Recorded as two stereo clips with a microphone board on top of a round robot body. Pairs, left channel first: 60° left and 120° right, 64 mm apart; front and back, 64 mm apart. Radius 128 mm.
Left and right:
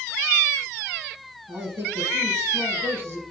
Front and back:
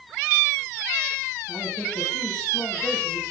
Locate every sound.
1.5 s a man speaking: 70° right, 4.5 m